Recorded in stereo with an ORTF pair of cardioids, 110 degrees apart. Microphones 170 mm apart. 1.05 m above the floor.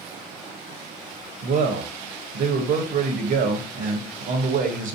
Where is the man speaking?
50° right, 0.8 m.